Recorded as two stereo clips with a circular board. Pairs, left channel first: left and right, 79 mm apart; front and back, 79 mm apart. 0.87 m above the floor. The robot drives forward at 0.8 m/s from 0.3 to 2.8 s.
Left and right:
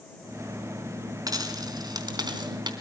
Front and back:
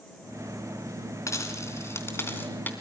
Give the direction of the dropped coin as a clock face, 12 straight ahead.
2 o'clock.